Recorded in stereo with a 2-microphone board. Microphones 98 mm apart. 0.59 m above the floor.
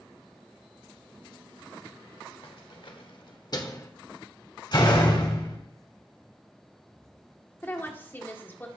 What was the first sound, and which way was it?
Keys jangling, 70° left (ahead or behind).